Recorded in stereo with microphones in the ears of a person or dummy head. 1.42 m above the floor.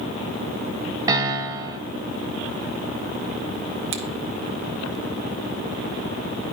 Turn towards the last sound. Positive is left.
turn(degrees=-35)  # may be behind; listen again after turning